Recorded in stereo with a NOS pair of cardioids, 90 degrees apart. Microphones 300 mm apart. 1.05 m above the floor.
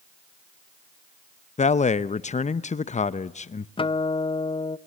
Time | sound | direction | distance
1.6 | a man speaking | 25° left | 0.7 m
3.8 | a guitar | 15° left | 0.6 m